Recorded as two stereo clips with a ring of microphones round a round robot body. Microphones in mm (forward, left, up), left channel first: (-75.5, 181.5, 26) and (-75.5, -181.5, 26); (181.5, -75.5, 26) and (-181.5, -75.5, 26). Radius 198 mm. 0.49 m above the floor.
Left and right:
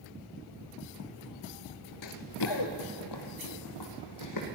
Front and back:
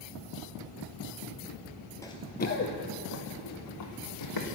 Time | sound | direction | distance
2.0 | running footsteps | 80° left | 0.6 m